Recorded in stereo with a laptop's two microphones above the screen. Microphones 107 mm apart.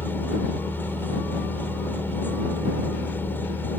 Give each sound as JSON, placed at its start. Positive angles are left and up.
{"t": 0.0, "sound": "a machine running", "side_deg": 20}